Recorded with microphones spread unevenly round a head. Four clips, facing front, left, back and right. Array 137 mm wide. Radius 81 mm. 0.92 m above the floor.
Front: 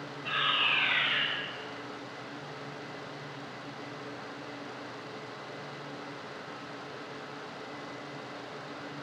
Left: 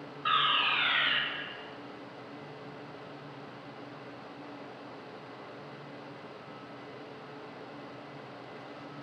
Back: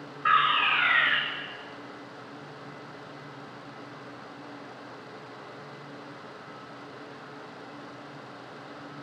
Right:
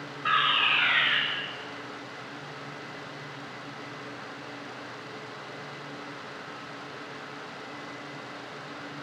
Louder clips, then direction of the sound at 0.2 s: Right 3 dB, back 9 dB; 165° right.